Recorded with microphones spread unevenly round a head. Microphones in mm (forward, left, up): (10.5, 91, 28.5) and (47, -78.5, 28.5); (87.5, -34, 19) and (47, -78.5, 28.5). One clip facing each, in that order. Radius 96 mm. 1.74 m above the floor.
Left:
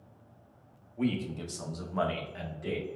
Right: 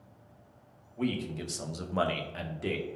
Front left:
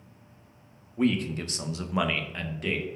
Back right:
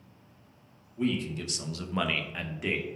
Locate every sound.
1.0 s a man speaking: 15° left, 0.8 m; by 2.9 s 65° right, 1.0 m